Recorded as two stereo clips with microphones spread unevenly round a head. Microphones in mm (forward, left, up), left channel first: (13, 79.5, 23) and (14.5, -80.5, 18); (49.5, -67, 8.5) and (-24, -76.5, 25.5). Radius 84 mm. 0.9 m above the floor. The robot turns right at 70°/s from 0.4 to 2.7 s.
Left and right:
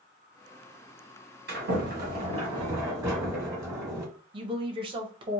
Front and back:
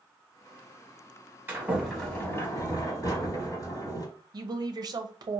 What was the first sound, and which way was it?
A sliding door, 105° right.